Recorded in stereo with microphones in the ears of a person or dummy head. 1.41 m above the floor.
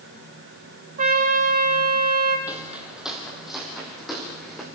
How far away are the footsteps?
About 3 m.